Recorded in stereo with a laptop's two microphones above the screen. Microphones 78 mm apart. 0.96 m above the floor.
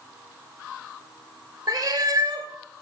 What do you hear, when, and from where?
1.7 s a cat meowing: 55° right (ahead or behind), 1.2 m